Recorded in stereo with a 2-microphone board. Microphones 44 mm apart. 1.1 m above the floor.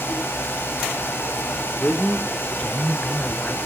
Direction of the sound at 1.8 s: 30° left (ahead or behind).